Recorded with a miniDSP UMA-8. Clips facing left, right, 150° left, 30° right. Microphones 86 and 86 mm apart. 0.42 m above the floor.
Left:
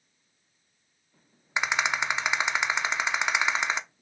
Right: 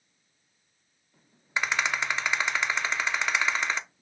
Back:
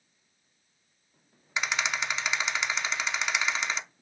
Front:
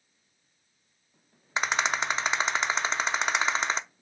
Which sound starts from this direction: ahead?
A rattle, at 1.6 s.